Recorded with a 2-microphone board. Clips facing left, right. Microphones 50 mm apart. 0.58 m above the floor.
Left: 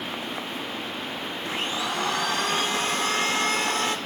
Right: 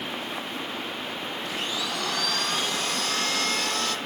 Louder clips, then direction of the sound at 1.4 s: Left 3 dB; 30° left (ahead or behind).